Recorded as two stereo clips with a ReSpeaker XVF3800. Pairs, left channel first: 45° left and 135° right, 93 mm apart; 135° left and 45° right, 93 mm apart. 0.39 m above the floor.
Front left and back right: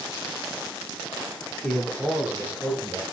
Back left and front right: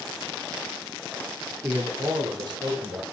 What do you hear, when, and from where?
1.6 s a man speaking: 10° right, 0.8 m; by 3.0 s 70° right, 1.7 m